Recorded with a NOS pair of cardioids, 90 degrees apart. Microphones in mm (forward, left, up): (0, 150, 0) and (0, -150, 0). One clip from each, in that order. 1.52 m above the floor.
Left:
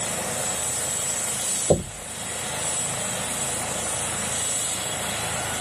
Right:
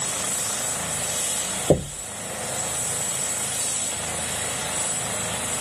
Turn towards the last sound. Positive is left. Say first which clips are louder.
# right 1 dB
turn(degrees=-25)